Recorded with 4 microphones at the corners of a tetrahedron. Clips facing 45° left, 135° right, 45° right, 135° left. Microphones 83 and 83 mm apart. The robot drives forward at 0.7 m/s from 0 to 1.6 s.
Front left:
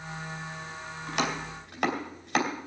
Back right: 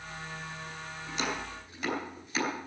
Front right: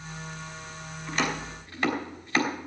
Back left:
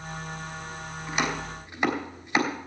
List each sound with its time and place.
1.1 s chopping: 60° left, 3 m; by 2.5 s 65° left, 3 m